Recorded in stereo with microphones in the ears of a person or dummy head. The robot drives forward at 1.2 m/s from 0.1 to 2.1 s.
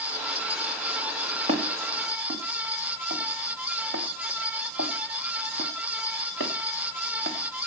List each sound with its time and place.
1.5 s footsteps: 25° right (ahead or behind), 2 m; by 7.7 s 65° right (ahead or behind), 4 m